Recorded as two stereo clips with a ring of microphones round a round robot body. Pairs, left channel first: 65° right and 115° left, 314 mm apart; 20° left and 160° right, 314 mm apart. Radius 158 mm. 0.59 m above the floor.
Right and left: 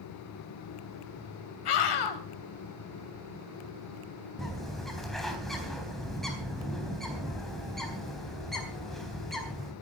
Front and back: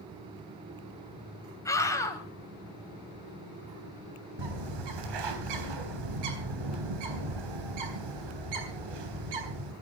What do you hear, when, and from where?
1.6 s a scream: 60° right, 3.5 m
4.4 s a bird: 155° right, 3.5 m